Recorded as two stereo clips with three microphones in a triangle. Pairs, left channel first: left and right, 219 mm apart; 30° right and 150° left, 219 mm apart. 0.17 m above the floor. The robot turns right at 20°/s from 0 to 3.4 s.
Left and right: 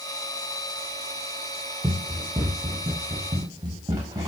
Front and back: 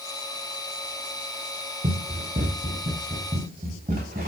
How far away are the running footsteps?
About 2 m.